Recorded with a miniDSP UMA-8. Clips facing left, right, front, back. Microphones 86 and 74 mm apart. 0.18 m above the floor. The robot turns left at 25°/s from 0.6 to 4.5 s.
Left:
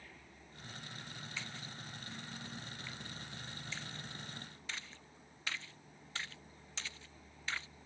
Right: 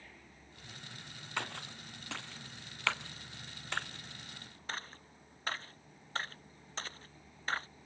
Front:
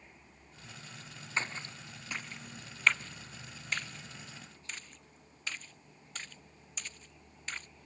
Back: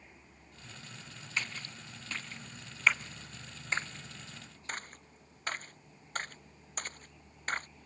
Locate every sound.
1.4 s a splash: 60° right; by 7.7 s 135° right